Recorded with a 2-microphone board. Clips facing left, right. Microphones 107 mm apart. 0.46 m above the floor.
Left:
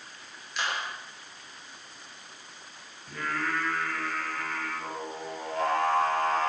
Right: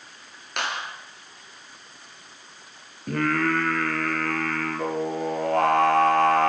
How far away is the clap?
About 6.5 m.